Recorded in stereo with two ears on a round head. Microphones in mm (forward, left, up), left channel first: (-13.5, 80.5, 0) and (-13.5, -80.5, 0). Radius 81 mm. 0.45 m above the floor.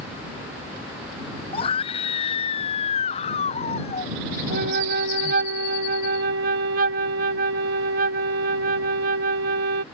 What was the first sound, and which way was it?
A scream, 30° left (ahead or behind).